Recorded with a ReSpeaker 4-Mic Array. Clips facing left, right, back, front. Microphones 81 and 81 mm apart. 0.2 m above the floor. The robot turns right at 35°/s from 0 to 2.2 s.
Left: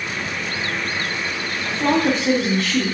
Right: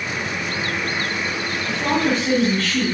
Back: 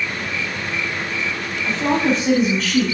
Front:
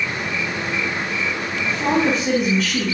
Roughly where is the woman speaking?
Ahead left.